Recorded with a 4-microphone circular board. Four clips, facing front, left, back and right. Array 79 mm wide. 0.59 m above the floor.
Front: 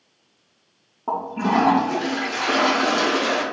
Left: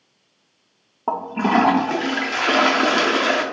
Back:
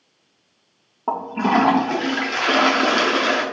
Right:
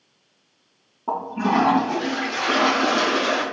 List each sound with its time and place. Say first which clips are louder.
1.1 s a toilet flushing: left 2 dB, back 2 dB; 115° left, 0.5 m